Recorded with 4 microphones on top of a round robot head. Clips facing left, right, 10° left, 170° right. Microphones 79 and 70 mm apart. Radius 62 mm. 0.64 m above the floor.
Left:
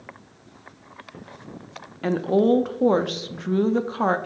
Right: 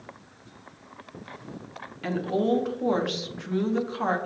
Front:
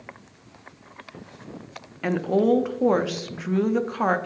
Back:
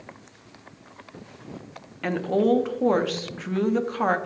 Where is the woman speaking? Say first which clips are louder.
Left 6 dB, front 1 dB; 90° left, 0.8 m.